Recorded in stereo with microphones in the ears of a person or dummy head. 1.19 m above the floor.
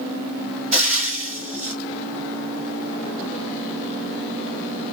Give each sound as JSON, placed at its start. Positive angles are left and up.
{"t": 0.7, "sound": "frying", "side_deg": -30, "distance_m": 2.5}